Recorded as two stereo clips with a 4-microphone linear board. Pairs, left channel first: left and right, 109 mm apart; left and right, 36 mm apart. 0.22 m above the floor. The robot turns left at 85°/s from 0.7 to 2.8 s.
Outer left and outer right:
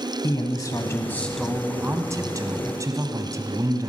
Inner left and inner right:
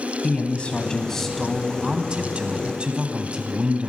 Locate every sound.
0.2 s a man speaking: 65° left, 1.2 m; by 3.9 s 115° right, 1.2 m